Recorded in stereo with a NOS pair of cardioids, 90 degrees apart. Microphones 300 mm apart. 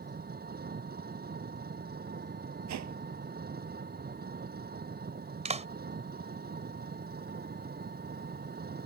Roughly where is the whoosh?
Ahead right.